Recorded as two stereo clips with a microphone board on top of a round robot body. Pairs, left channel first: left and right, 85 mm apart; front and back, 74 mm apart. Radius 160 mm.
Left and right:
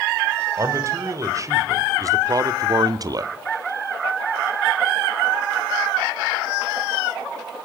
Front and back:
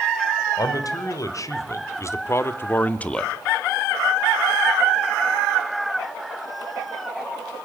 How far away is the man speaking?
About 4.5 m.